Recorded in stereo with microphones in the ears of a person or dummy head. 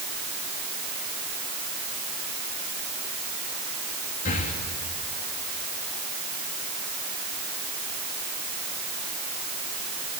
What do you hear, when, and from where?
4.2 s breathing: 35° left (ahead or behind), 2.5 m